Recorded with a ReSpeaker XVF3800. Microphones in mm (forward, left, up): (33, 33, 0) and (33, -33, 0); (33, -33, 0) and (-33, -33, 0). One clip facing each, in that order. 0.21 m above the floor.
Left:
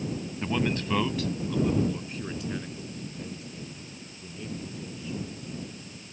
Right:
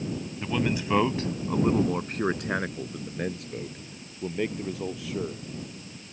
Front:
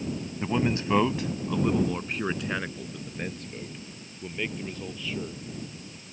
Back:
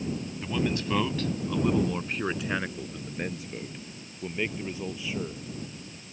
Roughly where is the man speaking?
Ahead.